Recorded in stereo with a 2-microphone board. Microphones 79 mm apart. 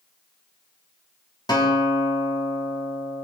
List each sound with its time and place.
1.5 s a guitar: 65° left (ahead or behind), 3 m